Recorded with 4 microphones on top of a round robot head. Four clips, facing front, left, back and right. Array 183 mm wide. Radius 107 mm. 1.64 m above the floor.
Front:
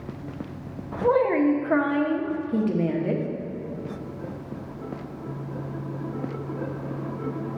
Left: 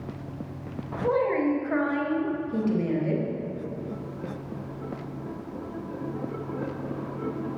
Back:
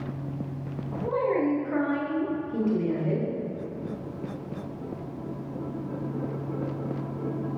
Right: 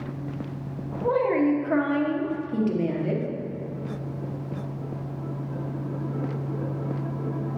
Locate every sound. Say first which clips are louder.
1.0 s a woman speaking: right 2 dB, front 5 dB; 15° right, 1.1 m